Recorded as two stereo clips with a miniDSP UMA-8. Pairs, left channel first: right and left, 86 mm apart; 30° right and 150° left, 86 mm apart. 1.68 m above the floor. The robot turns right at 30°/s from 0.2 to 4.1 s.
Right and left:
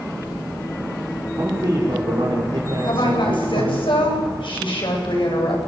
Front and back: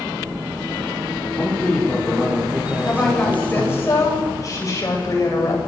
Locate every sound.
1.4 s a man speaking: 40° left, 6 m; by 3.8 s 115° left, 6 m
2.8 s a woman speaking: 120° right, 9 m; by 5.6 s 80° right, 9 m